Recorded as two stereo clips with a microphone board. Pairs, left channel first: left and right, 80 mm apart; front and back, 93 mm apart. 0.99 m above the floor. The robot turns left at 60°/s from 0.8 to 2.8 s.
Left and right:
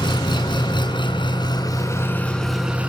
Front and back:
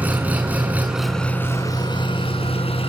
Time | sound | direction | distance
0.0 | an engine running | 105° left | 6 m